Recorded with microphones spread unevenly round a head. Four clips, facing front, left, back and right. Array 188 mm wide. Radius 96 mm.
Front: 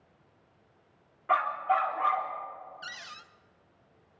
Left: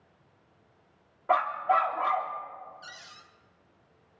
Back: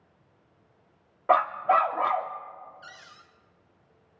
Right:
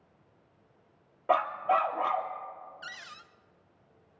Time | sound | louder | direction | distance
1.3 | a dog barking | left 1 dB, back 5 dB | 150° right | 0.8 m
2.8 | a cupboard door | right 3 dB, front 4 dB | 20° right | 0.8 m